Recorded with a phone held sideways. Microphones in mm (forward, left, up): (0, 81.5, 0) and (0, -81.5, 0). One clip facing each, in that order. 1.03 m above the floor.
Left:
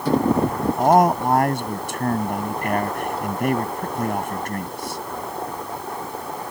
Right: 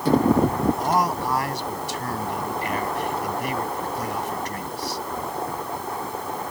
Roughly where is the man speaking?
Left.